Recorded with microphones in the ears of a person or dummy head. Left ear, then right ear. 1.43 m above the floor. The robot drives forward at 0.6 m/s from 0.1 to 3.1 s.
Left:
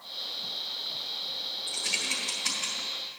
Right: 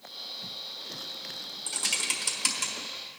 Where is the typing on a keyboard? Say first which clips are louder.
Right 1 dB; 60° right (ahead or behind), 1.8 m; by 3.2 s 55° right (ahead or behind), 1.9 m.